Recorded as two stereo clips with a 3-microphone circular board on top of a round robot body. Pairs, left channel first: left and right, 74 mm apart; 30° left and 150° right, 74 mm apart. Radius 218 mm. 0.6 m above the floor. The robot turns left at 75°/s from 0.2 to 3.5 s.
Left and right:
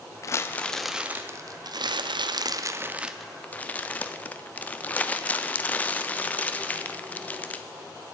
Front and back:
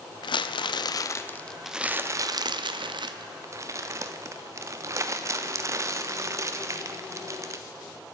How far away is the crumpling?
About 0.6 m.